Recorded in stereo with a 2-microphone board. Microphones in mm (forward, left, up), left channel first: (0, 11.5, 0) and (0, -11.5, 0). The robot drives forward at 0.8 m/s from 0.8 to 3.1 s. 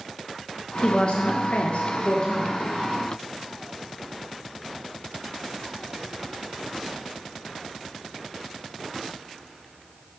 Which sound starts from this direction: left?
A woman speaking, at 0.8 s.